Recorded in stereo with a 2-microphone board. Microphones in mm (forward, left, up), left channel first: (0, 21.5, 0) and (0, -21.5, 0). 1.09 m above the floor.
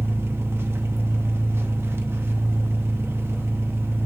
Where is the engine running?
75° right (ahead or behind), 0.8 m.